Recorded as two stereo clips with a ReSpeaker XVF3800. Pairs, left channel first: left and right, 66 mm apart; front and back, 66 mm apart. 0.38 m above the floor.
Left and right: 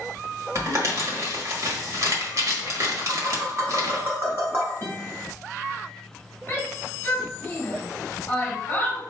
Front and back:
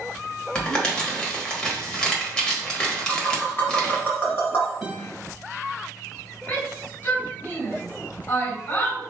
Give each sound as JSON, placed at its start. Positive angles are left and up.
{"t": 0.6, "sound": "crumpling", "azimuth_deg": -75, "distance_m": 1.4}
{"t": 3.1, "sound": "tapping", "azimuth_deg": -55, "distance_m": 2.5}
{"t": 4.8, "sound": "a guitar", "azimuth_deg": 125, "distance_m": 1.3}
{"t": 6.5, "sound": "a shout", "azimuth_deg": 30, "distance_m": 1.3}